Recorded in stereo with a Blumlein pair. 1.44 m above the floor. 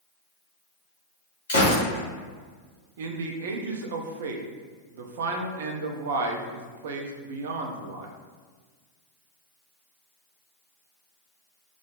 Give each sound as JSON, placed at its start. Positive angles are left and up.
{"t": 1.5, "sound": "a gunshot", "azimuth_deg": 70, "distance_m": 1.7}
{"t": 3.0, "sound": "a man speaking", "azimuth_deg": -55, "distance_m": 0.6}